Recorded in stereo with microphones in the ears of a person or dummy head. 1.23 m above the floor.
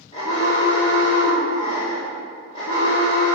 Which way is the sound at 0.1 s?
35° left (ahead or behind).